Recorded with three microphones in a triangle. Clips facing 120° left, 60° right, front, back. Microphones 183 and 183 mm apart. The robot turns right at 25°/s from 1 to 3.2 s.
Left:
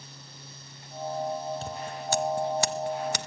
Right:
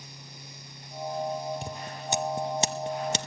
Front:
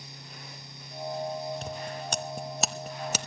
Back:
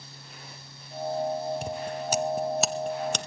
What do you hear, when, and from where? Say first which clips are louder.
1.6 s scissors: left 2 dB, back 4 dB; 115° right, 0.7 m; by 3.3 s 75° right, 0.7 m